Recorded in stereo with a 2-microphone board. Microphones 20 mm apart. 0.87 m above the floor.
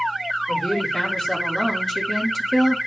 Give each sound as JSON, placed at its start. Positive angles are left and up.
{"t": 0.5, "sound": "a woman speaking", "side_deg": 40, "distance_m": 3.0}